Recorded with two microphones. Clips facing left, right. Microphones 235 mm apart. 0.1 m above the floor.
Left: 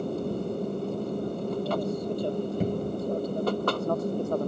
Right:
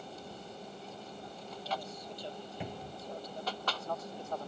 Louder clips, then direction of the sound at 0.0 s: Left 18 dB; 60° left (ahead or behind).